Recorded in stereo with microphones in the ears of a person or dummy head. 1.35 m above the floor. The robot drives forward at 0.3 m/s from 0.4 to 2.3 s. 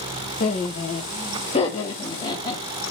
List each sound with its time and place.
0.4 s laughter: 40° left (ahead or behind), 1.1 m; by 2.6 s 30° left (ahead or behind), 1.5 m